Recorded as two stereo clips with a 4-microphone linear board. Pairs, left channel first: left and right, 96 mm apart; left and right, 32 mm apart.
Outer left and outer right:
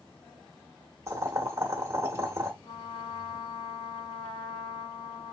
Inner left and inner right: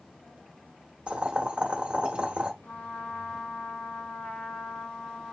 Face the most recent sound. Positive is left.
turn(degrees=60)  # may be behind; listen again after turning